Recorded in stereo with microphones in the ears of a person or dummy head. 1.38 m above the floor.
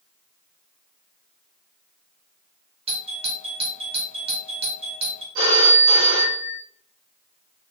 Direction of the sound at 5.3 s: 65° right (ahead or behind).